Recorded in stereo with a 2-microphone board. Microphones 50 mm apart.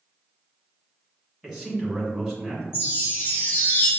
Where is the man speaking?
5° left (ahead or behind), 1.9 m.